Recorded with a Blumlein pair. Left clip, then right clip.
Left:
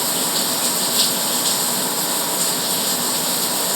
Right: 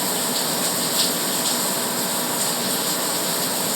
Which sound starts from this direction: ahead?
Running water, at 0.0 s.